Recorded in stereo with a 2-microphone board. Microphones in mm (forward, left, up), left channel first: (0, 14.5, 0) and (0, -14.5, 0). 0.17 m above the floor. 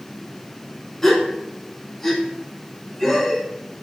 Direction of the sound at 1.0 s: 10° left (ahead or behind).